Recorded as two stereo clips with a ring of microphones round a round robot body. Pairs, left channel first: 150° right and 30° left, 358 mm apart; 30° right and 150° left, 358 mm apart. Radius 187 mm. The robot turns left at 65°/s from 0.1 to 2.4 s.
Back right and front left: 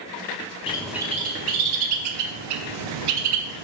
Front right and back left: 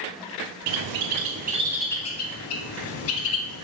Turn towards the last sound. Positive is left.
turn(degrees=20)